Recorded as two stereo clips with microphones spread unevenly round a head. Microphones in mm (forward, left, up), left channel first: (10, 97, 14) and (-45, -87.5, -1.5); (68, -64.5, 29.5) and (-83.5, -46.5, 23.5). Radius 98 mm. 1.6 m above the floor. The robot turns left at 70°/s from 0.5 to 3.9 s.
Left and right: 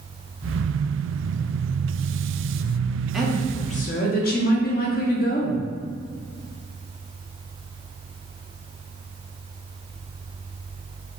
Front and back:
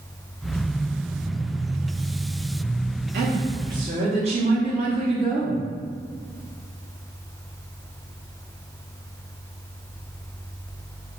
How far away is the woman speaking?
About 0.7 m.